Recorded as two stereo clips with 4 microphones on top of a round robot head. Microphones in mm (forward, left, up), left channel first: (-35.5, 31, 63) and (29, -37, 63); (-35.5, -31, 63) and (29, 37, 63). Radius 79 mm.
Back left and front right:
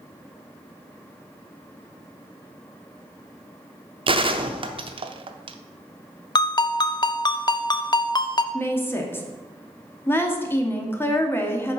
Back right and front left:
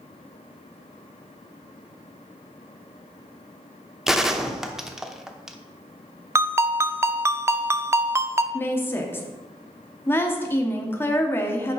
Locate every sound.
4.1 s a gunshot: 40° right, 0.8 m
6.3 s a ringtone: 100° left, 0.6 m
8.5 s a woman speaking: straight behind, 1.4 m